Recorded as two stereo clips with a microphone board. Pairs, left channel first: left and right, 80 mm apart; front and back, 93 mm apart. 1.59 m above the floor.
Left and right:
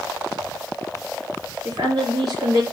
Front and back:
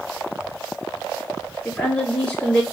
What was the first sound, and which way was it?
A woman speaking, 75° right.